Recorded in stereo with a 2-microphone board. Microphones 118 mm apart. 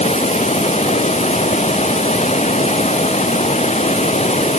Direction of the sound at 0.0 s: 85° left.